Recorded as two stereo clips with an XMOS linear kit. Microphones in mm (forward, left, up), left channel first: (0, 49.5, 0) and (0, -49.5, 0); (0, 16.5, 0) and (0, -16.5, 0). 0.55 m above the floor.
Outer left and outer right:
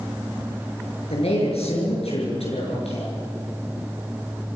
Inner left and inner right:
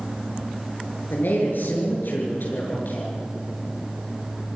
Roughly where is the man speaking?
Left.